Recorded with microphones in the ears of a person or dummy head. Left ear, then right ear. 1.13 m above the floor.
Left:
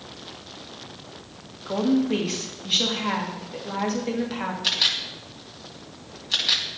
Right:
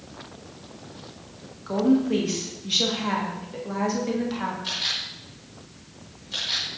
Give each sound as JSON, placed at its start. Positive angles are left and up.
{"t": 1.7, "sound": "a woman speaking", "side_deg": 10, "distance_m": 1.7}
{"t": 4.6, "sound": "a camera shutter", "side_deg": 50, "distance_m": 2.5}